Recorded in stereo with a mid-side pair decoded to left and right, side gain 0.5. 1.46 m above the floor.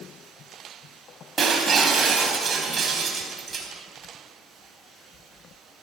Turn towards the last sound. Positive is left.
turn(degrees=-35)